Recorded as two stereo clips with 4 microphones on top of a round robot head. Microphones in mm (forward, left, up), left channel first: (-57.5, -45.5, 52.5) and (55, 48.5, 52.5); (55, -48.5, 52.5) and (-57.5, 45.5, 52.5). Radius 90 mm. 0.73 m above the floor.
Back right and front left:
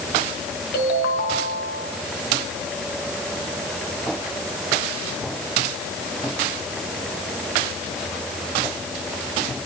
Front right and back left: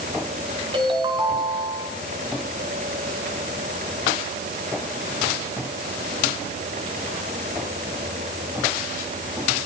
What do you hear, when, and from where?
0.7 s a ringtone: 160° right, 6 m